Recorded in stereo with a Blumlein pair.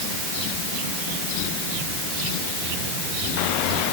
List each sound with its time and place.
Only background noise.